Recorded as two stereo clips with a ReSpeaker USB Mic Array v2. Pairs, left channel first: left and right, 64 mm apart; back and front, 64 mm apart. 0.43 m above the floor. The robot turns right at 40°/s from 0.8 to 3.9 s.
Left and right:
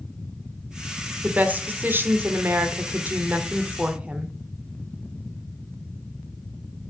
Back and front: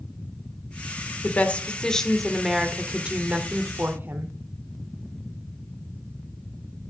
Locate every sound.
1.2 s a woman speaking: 135° right, 1.1 m; by 4.3 s 30° right, 1.1 m